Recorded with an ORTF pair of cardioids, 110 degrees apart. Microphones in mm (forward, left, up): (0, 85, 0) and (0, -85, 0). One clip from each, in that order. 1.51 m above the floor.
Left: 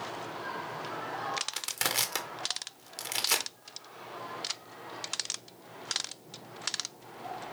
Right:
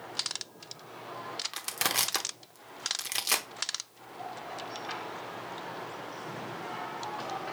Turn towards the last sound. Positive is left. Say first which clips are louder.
# right 5 dB
turn(degrees=-5)